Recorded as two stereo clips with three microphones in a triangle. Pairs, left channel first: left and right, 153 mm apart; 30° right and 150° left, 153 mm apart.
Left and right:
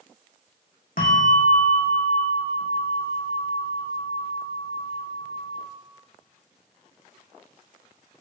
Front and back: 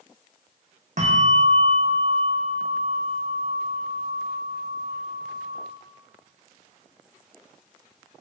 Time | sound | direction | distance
1.0 | a bell | 115° left | 3.5 m